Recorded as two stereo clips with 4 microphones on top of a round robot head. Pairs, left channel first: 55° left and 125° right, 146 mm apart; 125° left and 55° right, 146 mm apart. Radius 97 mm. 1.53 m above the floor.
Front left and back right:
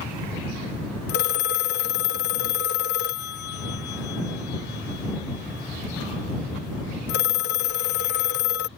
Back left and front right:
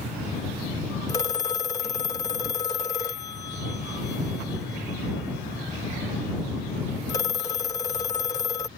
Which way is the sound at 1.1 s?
60° left.